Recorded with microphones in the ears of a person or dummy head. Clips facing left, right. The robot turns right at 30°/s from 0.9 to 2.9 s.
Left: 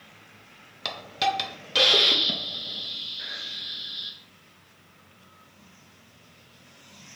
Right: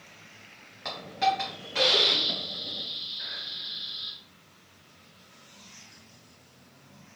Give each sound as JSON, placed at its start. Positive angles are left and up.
{"t": 0.8, "sound": "a hiss", "azimuth_deg": 80, "distance_m": 0.7}